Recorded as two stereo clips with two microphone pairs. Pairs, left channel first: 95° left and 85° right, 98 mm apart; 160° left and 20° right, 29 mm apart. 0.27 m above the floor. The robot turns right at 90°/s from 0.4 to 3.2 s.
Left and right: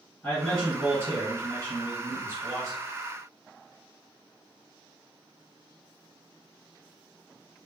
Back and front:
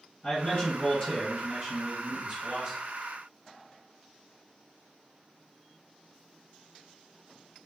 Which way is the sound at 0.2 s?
170° left.